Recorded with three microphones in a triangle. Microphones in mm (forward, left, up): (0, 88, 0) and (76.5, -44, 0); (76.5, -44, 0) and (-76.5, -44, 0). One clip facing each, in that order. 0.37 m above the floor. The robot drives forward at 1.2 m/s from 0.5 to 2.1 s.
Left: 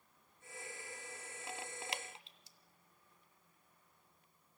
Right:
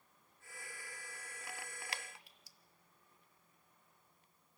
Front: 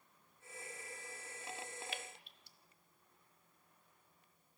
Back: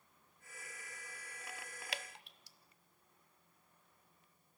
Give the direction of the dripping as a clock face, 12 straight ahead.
6 o'clock.